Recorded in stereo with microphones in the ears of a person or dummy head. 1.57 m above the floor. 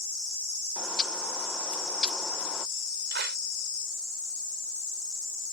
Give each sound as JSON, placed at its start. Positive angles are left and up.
{"t": 0.8, "sound": "a bird", "side_deg": 10}
{"t": 3.1, "sound": "a clap", "side_deg": -60}